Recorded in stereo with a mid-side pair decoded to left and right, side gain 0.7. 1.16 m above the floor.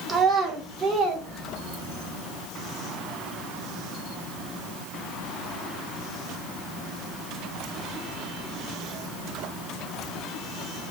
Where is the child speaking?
20° right, 1.6 m; by 2.1 s 45° right, 3.5 m.